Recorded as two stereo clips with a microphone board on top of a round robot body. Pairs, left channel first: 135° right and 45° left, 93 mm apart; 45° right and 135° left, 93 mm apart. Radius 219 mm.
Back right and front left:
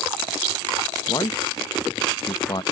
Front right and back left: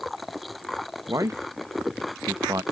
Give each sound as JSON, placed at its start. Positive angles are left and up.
{"t": 1.1, "sound": "a man speaking", "azimuth_deg": -175}